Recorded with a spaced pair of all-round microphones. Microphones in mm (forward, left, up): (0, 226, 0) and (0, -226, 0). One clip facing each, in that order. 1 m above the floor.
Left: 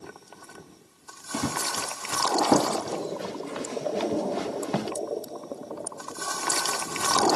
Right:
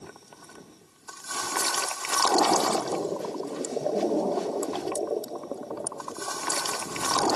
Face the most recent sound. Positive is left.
turn(degrees=80)